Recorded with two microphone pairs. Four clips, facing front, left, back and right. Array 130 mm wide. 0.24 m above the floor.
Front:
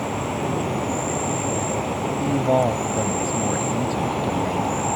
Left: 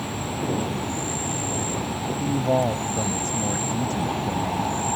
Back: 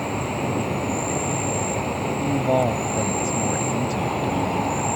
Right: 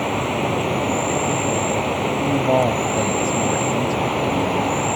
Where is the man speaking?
70° right.